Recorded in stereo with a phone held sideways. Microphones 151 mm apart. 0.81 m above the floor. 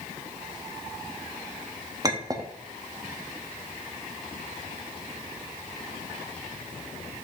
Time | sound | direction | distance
2.0 | a clink | 25° right (ahead or behind) | 0.8 m